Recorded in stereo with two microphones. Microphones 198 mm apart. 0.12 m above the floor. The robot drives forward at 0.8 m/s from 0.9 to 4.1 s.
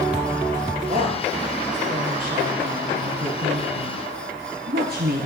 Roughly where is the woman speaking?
Right.